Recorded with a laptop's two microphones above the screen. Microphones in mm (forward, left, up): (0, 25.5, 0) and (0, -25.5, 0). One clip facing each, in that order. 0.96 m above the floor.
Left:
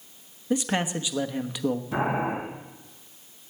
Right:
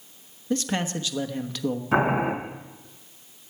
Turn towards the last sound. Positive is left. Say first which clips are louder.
# right 8 dB
turn(degrees=-80)